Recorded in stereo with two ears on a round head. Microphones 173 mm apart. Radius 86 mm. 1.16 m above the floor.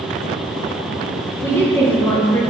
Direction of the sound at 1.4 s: 15° left (ahead or behind).